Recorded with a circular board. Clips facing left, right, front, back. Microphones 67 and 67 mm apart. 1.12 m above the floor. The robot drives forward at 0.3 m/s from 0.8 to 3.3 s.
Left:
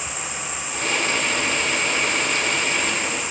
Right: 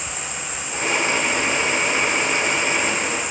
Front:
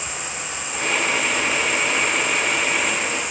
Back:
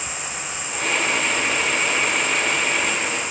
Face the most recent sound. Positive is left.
turn(degrees=-75)